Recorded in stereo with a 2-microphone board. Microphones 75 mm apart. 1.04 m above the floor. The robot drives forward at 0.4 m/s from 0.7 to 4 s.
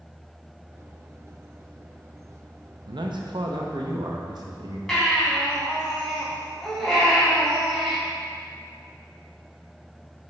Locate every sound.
2.9 s a man speaking: 80° right, 0.8 m; by 4.8 s 60° right (ahead or behind), 0.9 m
4.9 s a baby crying: 5° left (ahead or behind), 2.5 m